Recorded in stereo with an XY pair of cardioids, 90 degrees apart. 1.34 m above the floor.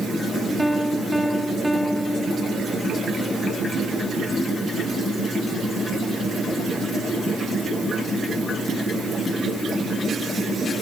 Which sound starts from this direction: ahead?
A piano, at 0.6 s.